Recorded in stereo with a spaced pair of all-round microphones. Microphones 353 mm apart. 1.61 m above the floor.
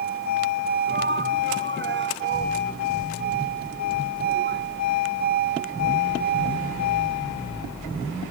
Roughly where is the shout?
Right.